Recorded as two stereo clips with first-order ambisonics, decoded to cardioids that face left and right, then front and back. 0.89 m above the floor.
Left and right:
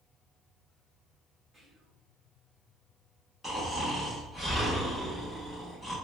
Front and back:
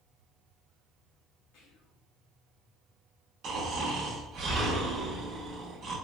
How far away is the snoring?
About 1.0 m.